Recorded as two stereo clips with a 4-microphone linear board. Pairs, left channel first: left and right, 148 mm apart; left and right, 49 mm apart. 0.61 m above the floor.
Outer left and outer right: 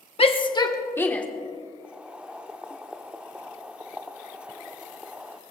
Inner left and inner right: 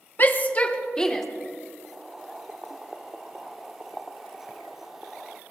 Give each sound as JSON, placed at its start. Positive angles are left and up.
{"t": 0.2, "sound": "a shout", "side_deg": 40, "distance_m": 1.2}
{"t": 1.8, "sound": "boiling", "side_deg": -5, "distance_m": 0.6}